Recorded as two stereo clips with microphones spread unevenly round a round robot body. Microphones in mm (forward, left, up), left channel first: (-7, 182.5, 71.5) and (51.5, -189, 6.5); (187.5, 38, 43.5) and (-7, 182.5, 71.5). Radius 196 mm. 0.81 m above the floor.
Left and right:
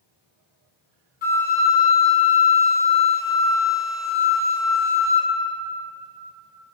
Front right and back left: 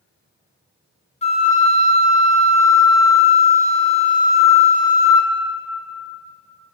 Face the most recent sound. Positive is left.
turn(degrees=30)